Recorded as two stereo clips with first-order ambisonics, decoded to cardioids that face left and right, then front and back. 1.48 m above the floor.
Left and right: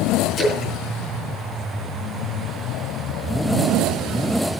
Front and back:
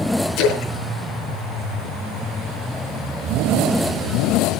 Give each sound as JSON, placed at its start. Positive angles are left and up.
{"t": 0.4, "sound": "a splash", "azimuth_deg": 30, "distance_m": 4.0}